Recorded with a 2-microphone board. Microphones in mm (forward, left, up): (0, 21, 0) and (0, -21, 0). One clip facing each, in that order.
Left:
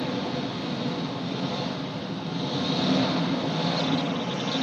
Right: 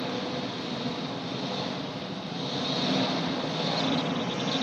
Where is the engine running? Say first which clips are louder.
Left 3 dB; 75° left (ahead or behind), 2.5 m.